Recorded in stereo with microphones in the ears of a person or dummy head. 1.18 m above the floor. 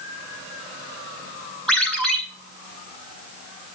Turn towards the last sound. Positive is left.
turn(degrees=0)  # may be behind; listen again after turning